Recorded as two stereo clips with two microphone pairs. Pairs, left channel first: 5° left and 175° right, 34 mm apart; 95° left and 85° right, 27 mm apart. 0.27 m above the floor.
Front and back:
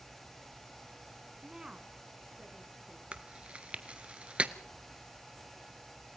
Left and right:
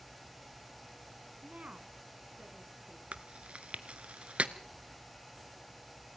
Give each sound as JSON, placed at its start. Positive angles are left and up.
{"t": 1.4, "sound": "a woman speaking", "azimuth_deg": -105, "distance_m": 1.9}
{"t": 3.1, "sound": "chewing", "azimuth_deg": -120, "distance_m": 1.1}